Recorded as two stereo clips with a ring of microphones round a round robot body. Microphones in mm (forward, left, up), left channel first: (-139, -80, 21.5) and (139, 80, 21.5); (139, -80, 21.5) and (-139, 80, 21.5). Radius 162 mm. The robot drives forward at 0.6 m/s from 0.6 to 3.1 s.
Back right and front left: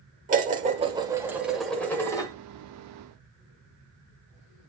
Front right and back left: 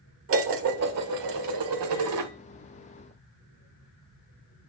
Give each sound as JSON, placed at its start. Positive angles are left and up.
{"t": 0.3, "sound": "dishes clattering", "azimuth_deg": 100, "distance_m": 1.4}